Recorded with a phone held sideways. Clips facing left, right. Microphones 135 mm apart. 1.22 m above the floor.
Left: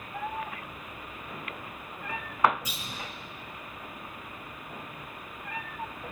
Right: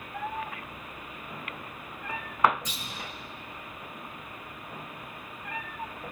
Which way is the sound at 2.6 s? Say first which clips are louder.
Even; 10° left (ahead or behind).